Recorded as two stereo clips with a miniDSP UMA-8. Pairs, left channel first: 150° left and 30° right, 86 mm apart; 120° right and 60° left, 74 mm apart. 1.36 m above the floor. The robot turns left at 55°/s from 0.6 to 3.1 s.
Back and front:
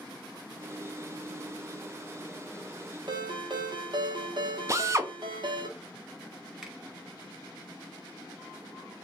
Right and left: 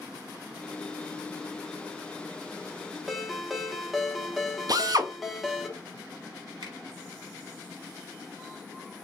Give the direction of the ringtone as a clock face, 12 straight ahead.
1 o'clock.